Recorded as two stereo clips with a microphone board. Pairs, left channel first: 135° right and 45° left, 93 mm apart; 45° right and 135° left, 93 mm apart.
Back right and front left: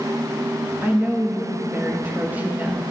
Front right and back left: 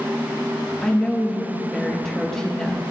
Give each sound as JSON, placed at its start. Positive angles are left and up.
{"t": 0.8, "sound": "a woman speaking", "azimuth_deg": 30, "distance_m": 1.0}